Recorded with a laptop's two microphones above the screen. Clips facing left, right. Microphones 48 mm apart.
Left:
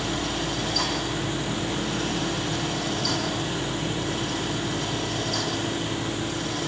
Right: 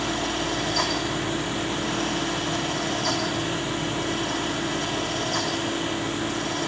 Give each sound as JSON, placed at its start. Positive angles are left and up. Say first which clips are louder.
{"t": 0.0, "sound": "a fan", "louder": "right 2 dB", "side_deg": -45, "distance_m": 3.5}